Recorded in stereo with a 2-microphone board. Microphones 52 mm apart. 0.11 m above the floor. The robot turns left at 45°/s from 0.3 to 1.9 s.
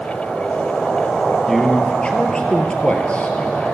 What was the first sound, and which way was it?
A man speaking, centre (ahead or behind).